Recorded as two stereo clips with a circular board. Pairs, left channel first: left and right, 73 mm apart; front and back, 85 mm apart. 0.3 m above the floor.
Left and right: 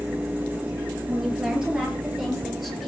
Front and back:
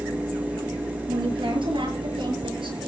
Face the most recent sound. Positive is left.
turn(degrees=180)